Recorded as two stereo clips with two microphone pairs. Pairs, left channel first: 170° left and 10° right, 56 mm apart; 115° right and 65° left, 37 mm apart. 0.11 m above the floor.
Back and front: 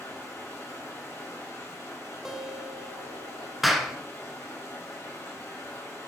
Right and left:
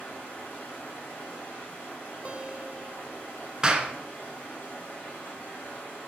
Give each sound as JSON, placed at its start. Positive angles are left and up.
{"t": 0.0, "sound": "running water", "azimuth_deg": -150, "distance_m": 3.0}
{"t": 2.2, "sound": "a guitar", "azimuth_deg": 65, "distance_m": 0.8}
{"t": 3.6, "sound": "a clap", "azimuth_deg": 75, "distance_m": 0.9}